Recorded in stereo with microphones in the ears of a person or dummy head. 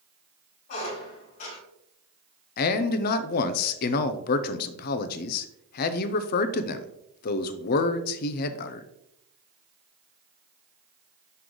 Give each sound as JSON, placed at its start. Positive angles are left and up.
{"t": 0.7, "sound": "a squeak", "side_deg": 60, "distance_m": 3.5}
{"t": 2.6, "sound": "a man speaking", "side_deg": 55, "distance_m": 0.6}